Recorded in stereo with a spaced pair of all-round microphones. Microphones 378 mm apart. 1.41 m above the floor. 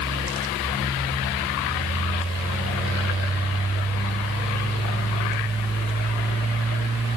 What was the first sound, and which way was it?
Only background noise.